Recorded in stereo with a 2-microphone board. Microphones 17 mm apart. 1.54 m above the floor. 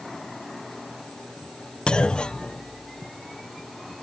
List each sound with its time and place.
1.9 s a clunk: 75° left (ahead or behind)